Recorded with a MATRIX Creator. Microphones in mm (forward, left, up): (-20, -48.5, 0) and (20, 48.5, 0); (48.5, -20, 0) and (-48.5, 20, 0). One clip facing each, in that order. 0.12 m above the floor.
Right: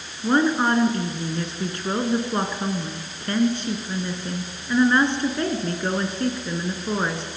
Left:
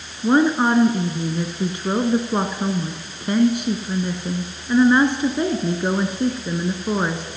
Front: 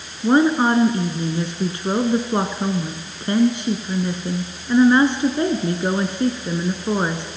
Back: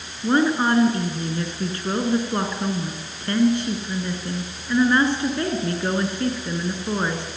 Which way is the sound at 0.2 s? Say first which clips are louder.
Left 3 dB, front 4 dB; 10° left.